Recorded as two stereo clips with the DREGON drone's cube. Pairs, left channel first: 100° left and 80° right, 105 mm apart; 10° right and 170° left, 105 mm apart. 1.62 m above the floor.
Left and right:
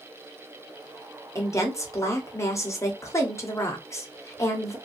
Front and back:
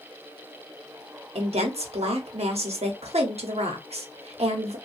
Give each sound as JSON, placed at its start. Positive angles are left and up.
{"t": 1.4, "sound": "a woman speaking", "azimuth_deg": 160, "distance_m": 0.8}